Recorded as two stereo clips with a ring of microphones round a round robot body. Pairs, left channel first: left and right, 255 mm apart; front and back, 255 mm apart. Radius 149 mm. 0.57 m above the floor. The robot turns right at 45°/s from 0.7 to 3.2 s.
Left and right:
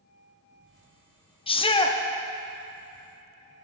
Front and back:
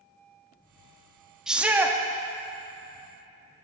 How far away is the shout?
About 0.6 m.